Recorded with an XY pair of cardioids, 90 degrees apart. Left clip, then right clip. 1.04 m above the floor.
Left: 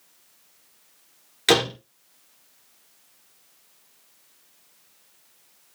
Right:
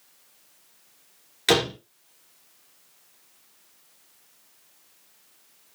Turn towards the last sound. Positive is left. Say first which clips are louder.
# left 2 dB
turn(degrees=15)